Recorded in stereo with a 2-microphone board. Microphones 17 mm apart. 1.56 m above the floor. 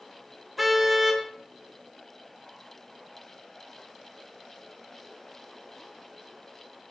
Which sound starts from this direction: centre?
A car horn, at 0.6 s.